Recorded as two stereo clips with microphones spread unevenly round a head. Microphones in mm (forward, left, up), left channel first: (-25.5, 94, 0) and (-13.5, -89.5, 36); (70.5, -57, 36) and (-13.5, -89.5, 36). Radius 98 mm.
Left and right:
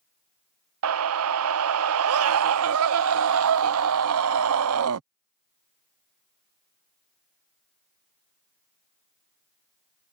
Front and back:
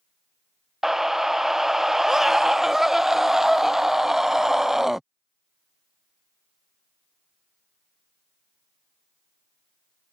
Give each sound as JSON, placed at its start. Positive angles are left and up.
{"t": 0.8, "sound": "a scream", "azimuth_deg": -70}